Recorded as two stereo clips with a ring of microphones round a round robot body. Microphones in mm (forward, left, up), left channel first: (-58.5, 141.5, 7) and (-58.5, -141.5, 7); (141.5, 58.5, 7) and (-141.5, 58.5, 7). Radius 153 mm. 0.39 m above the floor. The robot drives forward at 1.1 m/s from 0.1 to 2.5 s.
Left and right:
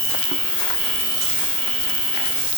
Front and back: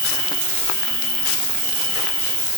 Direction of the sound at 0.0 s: 160° left.